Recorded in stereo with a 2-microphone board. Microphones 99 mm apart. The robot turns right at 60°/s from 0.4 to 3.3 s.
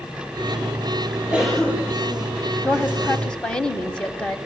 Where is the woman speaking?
20° left (ahead or behind), 1.5 m; by 4.4 s 10° left (ahead or behind), 1.5 m.